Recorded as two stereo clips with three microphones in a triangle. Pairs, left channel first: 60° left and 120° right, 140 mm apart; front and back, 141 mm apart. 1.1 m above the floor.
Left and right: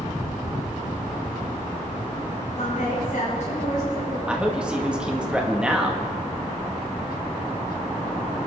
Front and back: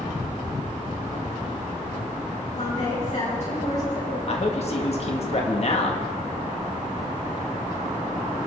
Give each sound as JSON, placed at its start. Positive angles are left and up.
{"t": 2.6, "sound": "a woman speaking", "azimuth_deg": 30, "distance_m": 6.5}
{"t": 4.3, "sound": "a man speaking", "azimuth_deg": -35, "distance_m": 2.0}